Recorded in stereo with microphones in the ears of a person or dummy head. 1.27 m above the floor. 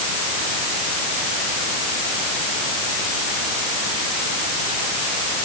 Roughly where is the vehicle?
No vehicle in this recording.